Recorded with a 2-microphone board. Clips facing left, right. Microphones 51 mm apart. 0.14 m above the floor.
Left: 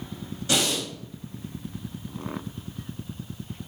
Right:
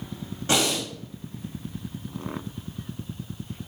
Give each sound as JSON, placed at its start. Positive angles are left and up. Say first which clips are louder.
{"t": 0.5, "sound": "breathing", "louder": "right 2 dB", "side_deg": -30, "distance_m": 1.4}